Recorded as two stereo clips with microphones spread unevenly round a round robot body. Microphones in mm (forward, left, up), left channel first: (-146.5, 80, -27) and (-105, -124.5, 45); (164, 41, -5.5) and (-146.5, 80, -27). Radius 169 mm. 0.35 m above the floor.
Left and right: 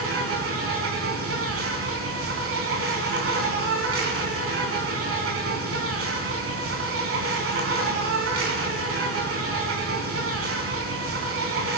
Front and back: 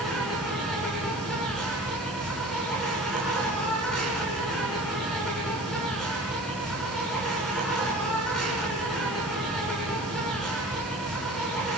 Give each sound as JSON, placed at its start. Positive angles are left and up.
{"t": 0.0, "sound": "an insect", "azimuth_deg": -95, "distance_m": 4.5}